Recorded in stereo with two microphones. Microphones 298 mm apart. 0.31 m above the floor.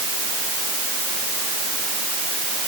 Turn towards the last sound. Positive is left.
No sound to turn to.